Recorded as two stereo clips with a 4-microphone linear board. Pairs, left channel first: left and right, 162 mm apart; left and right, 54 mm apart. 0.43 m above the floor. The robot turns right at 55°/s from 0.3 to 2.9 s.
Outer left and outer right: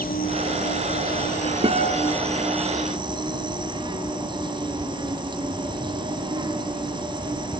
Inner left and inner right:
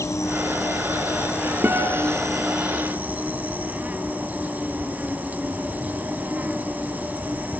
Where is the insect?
65° left, 2 m; by 7.6 s 150° right, 2 m.